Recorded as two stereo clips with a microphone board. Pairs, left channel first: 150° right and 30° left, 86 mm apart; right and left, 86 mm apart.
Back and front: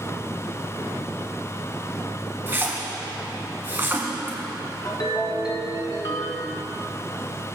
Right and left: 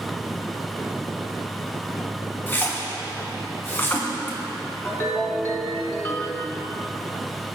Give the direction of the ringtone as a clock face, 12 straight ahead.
5 o'clock.